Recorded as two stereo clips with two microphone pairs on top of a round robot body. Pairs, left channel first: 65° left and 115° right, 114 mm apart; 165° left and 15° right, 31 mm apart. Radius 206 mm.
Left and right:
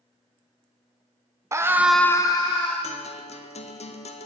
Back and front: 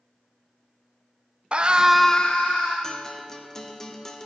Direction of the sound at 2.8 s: 85° left.